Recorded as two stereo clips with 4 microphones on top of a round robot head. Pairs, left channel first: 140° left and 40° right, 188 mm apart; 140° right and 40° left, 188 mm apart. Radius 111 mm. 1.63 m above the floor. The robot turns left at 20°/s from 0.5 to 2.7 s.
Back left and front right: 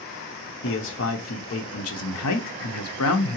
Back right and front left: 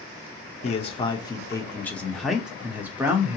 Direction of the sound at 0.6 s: 165° left.